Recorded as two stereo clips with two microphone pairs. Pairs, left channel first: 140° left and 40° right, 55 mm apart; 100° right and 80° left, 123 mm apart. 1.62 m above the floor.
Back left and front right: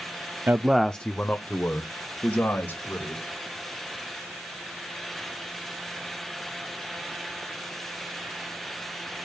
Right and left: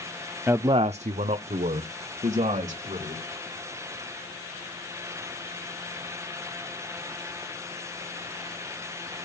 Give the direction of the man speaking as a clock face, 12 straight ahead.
12 o'clock.